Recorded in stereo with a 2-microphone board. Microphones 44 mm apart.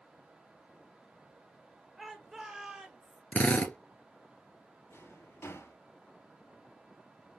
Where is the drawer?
70° left (ahead or behind), 3.5 m.